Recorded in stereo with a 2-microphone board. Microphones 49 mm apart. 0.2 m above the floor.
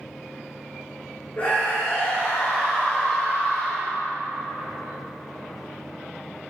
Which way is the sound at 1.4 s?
40° left (ahead or behind).